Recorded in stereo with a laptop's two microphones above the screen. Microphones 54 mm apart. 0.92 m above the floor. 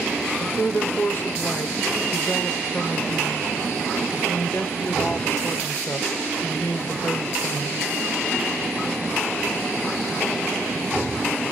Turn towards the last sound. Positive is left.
turn(degrees=45)  # may be behind; listen again after turning